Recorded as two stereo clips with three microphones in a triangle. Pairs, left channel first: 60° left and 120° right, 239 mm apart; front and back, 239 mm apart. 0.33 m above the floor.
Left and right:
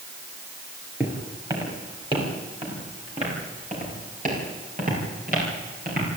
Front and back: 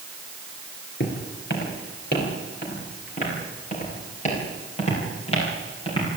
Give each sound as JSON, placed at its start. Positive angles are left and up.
{"t": 1.0, "sound": "footsteps", "azimuth_deg": -40, "distance_m": 8.5}